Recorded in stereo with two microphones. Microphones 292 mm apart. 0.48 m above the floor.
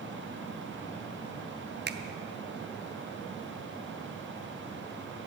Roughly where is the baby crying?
No baby crying in this recording.